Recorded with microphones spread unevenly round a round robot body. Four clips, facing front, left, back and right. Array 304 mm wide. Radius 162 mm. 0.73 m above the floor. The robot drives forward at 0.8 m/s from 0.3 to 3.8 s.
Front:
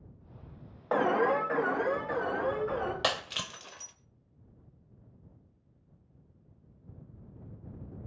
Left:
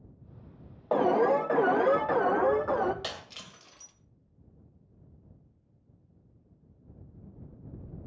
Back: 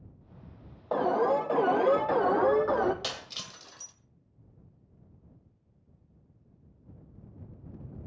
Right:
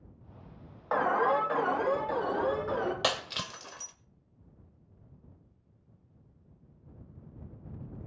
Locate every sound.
0.9 s an alarm: 75° left, 1.1 m; by 2.9 s 155° left, 1.8 m
3.0 s breaking glass: 60° right, 1.8 m; by 4.0 s 80° right, 1.6 m